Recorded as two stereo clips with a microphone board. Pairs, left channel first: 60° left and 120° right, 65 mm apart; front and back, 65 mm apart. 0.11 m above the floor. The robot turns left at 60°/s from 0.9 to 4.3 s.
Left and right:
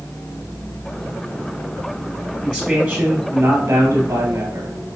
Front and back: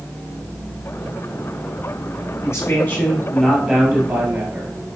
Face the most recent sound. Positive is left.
turn(degrees=-120)